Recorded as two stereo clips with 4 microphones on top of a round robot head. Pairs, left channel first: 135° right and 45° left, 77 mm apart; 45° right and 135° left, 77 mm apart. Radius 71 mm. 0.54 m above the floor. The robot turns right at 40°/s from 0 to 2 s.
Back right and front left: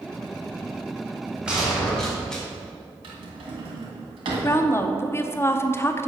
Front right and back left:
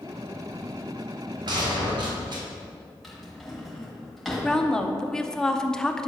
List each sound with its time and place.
1.5 s a gunshot: 125° left, 2 m; by 2.4 s 145° left, 2 m
3.0 s a drawer: 40° left, 1.9 m
4.4 s a woman speaking: 120° right, 0.7 m